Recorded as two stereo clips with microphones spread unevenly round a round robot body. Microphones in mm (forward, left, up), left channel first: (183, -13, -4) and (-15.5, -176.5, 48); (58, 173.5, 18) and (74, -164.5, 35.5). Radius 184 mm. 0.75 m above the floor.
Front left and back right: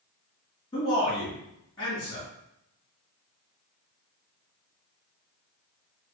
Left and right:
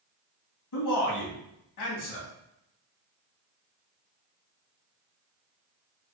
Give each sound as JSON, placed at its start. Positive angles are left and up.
{"t": 0.7, "sound": "a man speaking", "azimuth_deg": 105, "distance_m": 1.8}